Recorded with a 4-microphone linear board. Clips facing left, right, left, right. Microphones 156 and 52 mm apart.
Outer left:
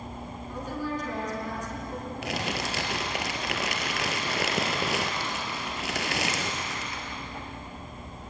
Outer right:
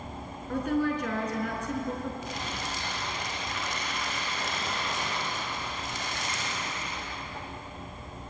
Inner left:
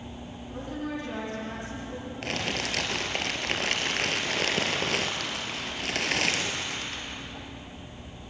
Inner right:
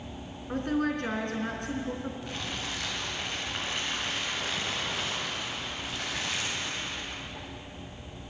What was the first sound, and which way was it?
A woman speaking, 65° right (ahead or behind).